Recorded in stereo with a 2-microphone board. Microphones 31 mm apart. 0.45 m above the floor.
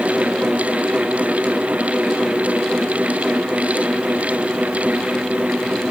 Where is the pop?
No pop in this recording.